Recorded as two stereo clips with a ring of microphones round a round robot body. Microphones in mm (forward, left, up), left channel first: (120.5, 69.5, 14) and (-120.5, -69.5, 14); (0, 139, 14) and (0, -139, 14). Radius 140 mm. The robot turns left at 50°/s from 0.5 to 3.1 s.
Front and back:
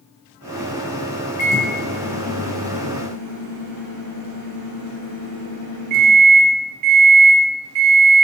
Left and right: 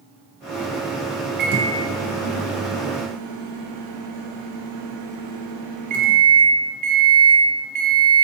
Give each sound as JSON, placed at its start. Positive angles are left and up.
{"t": 1.4, "sound": "a microwave", "azimuth_deg": -30, "distance_m": 0.5}